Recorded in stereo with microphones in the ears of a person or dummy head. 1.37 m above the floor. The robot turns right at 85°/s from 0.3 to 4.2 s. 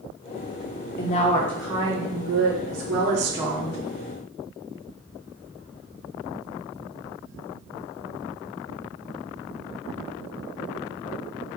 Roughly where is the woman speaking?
Behind left.